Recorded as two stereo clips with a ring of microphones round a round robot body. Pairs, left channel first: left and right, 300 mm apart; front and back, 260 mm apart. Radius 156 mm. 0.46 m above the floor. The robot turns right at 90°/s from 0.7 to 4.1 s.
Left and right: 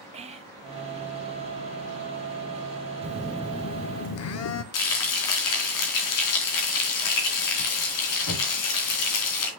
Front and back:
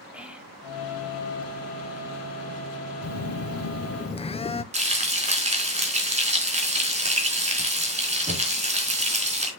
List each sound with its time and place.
0.1 s whispering: 100° right, 0.7 m
3.0 s a phone buzzing: 30° right, 0.9 m; by 4.6 s 65° left, 0.9 m
4.7 s frying: 115° left, 4 m